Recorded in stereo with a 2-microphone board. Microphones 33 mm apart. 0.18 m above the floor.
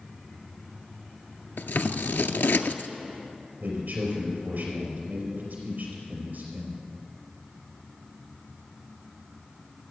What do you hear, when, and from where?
1.6 s scissors: 80° left, 0.5 m
3.6 s a man speaking: 55° right (ahead or behind), 4 m